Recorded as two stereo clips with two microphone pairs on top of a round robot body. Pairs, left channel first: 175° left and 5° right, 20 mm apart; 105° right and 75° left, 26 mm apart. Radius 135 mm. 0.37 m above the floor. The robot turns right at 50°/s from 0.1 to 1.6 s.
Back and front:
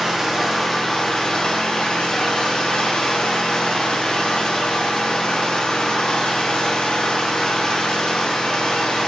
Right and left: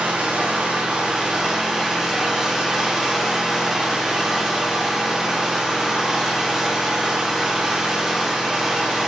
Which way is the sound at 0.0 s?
70° left.